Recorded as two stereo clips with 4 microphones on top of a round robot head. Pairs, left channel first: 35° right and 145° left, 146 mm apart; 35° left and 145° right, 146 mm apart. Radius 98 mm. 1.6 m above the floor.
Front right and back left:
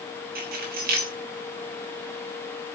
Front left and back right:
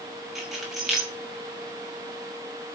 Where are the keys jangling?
125° left, 6.5 m.